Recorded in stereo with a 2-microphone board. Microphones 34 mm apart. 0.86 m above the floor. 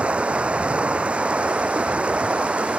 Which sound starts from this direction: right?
Running water, at 0.0 s.